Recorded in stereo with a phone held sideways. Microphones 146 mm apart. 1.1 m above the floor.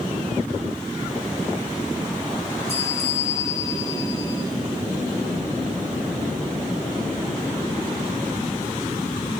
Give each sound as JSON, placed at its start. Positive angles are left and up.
{"t": 2.7, "sound": "a bell", "side_deg": 50, "distance_m": 3.5}